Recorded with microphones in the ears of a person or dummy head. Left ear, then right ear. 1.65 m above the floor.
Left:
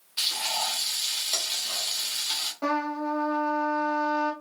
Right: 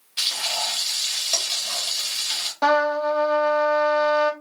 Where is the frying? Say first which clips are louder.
Right 3 dB; 10° right (ahead or behind), 0.7 m.